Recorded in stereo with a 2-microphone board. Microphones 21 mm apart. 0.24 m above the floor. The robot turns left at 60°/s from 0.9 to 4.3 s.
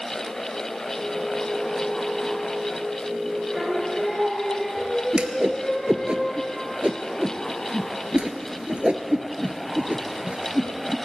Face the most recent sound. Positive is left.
turn(degrees=-70)  # may be behind; listen again after turning